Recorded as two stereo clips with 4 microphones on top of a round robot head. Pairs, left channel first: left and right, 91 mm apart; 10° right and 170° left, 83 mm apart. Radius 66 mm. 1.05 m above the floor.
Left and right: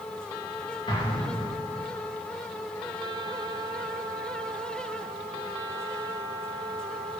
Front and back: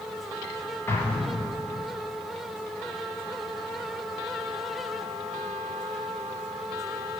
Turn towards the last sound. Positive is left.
turn(degrees=55)